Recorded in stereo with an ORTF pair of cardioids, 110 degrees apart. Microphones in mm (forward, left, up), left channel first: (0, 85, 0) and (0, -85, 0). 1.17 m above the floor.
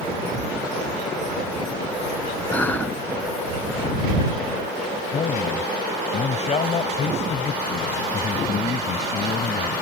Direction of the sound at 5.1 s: 40° left.